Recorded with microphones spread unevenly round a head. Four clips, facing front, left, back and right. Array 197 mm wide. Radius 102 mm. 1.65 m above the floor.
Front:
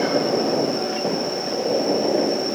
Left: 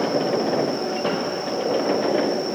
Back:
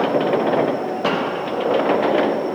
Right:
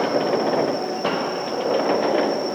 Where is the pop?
I don't hear a pop.